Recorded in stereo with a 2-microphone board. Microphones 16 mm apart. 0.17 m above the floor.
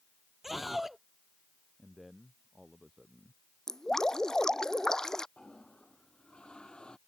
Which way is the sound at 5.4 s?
75° left (ahead or behind).